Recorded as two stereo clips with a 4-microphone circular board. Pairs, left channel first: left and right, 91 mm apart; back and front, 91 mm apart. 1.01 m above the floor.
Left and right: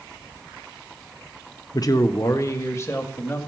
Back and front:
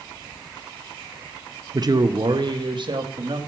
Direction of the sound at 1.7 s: 45° left.